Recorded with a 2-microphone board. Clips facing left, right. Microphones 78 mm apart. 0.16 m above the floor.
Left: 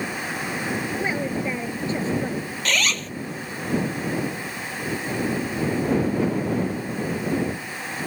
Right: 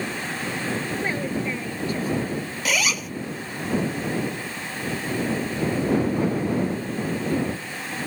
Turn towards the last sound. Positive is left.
turn(degrees=-10)  # may be behind; listen again after turning